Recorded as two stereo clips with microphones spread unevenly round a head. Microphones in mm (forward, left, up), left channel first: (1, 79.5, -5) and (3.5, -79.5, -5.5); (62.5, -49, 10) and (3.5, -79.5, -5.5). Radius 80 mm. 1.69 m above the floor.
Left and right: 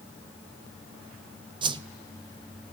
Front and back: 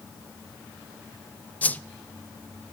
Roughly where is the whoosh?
Ahead right.